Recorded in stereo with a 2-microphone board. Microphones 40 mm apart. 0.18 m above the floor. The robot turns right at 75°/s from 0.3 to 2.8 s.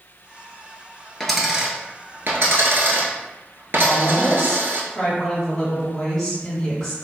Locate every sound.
1.2 s a dropped coin: 170° left, 0.9 m; by 4.8 s 70° right, 0.9 m
3.8 s a woman speaking: 10° left (ahead or behind), 1.6 m